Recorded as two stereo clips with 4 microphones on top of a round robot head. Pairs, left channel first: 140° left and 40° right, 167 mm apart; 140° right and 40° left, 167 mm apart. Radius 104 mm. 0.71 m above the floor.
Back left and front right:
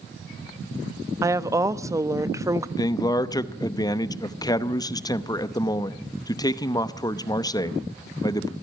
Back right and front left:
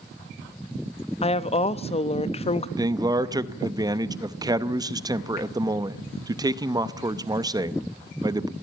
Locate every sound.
1.2 s a woman speaking: 105° right, 0.7 m
2.8 s a man speaking: 90° left, 0.8 m